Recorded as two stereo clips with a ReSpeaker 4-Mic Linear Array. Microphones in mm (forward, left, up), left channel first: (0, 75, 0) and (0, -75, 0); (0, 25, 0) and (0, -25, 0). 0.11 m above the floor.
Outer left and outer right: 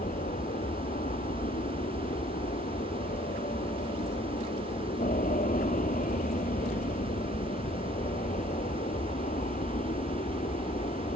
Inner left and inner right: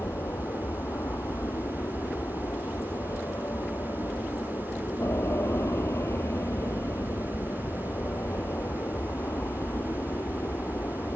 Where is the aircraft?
65° left (ahead or behind); by 11.2 s 55° left (ahead or behind).